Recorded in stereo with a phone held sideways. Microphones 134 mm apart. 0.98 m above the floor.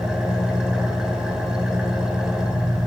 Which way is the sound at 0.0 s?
5° right (ahead or behind).